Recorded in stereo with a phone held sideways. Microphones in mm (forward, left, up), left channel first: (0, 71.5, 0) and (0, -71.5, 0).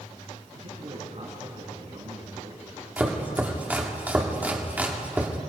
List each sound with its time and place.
0.6 s a man speaking: 50° right (ahead or behind), 9 m
3.0 s chopping: 10° right (ahead or behind), 2 m